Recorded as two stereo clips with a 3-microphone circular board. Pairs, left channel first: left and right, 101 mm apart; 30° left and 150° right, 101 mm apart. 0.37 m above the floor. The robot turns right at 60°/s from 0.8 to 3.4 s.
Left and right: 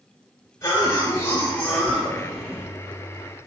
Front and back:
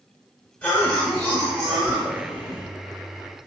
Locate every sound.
0.6 s a cough: 85° left, 1.3 m; by 2.6 s 165° right, 1.3 m